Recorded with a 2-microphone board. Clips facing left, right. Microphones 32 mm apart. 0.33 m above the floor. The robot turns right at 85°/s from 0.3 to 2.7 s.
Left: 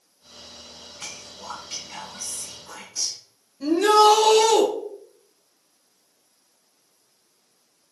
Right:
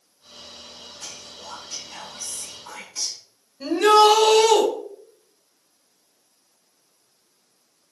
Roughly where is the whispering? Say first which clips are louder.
Left 3 dB; left.